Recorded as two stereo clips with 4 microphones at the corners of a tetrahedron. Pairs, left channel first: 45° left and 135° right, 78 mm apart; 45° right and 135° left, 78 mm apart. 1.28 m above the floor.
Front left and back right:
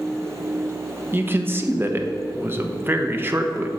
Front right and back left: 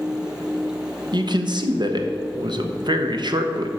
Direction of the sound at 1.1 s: 165° left.